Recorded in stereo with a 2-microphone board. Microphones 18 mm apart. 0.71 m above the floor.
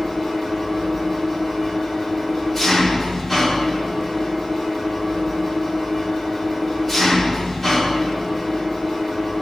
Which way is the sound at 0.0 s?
5° left (ahead or behind).